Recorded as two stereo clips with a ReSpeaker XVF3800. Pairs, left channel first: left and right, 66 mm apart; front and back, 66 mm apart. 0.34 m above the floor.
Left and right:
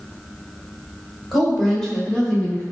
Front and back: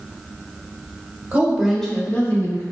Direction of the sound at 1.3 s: Straight behind.